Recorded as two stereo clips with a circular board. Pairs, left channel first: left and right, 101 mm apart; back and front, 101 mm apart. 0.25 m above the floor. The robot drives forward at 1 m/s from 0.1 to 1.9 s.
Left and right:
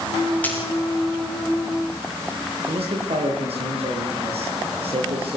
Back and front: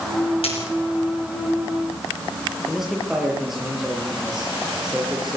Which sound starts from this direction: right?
A man speaking, at 2.7 s.